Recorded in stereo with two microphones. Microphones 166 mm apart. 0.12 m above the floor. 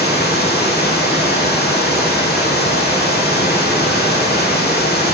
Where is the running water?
80° left, 1.9 m.